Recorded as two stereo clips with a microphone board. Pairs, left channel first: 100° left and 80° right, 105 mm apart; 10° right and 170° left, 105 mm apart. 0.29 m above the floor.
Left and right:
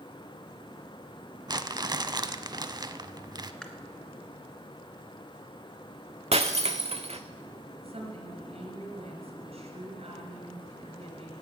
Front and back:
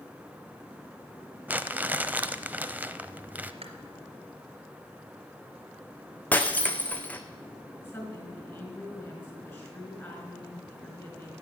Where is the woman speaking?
75° right, 4 m.